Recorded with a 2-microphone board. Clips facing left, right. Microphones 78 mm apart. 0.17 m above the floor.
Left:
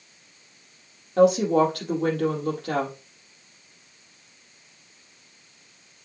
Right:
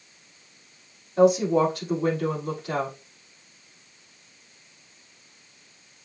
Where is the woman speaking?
70° left (ahead or behind), 4.5 m.